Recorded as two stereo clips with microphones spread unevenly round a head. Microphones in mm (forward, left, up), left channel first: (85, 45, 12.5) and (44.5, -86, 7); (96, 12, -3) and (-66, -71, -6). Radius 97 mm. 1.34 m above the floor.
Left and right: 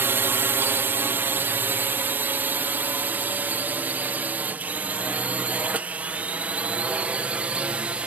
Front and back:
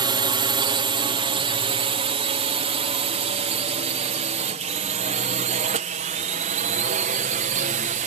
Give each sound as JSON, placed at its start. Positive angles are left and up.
{"t": 0.0, "sound": "a drone", "azimuth_deg": -155}